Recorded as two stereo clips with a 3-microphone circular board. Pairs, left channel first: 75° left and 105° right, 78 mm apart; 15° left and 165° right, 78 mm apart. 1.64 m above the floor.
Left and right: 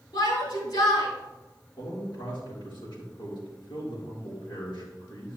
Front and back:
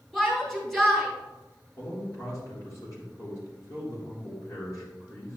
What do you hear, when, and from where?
0.1 s a shout: 100° left, 4 m
1.8 s a man speaking: 60° left, 3.5 m